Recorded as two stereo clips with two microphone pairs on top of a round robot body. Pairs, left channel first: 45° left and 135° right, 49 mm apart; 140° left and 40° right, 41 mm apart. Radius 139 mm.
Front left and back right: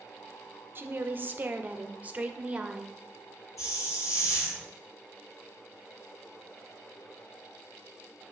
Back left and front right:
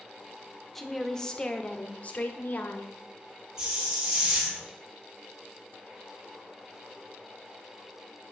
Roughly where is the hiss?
Ahead left.